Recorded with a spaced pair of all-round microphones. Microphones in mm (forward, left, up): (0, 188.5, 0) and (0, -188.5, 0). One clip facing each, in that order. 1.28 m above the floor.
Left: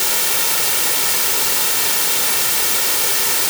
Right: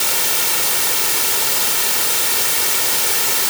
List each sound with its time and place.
Only background noise.